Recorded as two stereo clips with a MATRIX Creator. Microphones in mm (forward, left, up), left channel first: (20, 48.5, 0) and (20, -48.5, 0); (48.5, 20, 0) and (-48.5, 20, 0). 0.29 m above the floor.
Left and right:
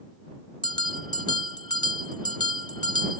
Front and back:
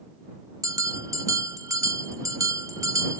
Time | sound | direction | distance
0.6 | a bell | 125° left | ?